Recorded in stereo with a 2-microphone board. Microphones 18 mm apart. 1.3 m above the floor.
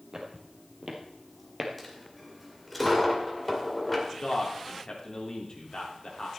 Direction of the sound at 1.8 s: 5° left (ahead or behind).